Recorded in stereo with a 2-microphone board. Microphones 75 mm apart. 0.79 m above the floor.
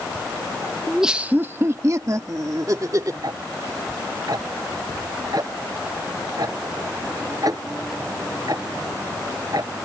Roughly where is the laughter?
Centre.